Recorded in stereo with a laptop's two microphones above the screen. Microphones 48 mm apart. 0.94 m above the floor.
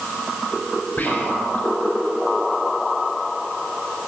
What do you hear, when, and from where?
1.0 s whispering: 30° left (ahead or behind), 5 m